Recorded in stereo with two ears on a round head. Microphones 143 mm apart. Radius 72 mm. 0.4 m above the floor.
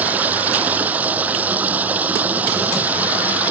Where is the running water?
10° right (ahead or behind).